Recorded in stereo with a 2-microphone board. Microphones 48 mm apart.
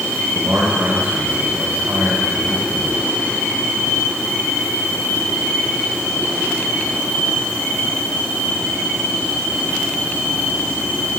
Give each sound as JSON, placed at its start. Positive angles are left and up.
{"t": 0.3, "sound": "a man speaking", "side_deg": -45, "distance_m": 7.0}